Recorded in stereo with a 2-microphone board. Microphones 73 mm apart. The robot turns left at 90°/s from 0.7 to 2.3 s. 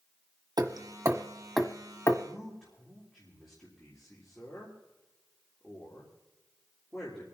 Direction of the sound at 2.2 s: 10° left (ahead or behind).